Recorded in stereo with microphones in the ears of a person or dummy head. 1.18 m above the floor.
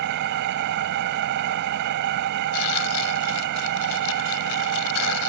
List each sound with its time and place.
0.0 s an engine running: 60° right (ahead or behind)
2.5 s tearing paper: 85° left